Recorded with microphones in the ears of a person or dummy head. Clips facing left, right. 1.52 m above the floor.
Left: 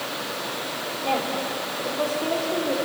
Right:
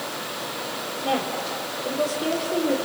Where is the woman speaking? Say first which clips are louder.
Even; 15° right (ahead or behind), 4.5 m.